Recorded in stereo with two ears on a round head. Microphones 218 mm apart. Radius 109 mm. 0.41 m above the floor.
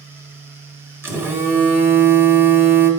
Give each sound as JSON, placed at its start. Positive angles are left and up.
{"t": 1.0, "sound": "a phone buzzing", "side_deg": -10, "distance_m": 0.9}